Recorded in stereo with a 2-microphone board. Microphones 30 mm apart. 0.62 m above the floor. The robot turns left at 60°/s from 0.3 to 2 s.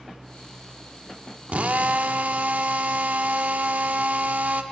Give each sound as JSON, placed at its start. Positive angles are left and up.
{"t": 1.5, "sound": "a drill", "azimuth_deg": -65, "distance_m": 0.8}